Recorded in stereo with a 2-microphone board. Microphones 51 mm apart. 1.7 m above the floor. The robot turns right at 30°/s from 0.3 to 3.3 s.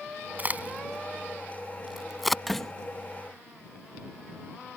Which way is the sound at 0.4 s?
35° right (ahead or behind).